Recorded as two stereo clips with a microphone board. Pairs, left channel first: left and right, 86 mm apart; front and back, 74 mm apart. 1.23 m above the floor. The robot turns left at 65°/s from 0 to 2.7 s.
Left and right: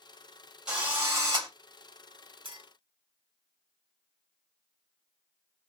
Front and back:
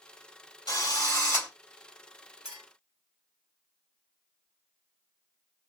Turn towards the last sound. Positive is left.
turn(degrees=-120)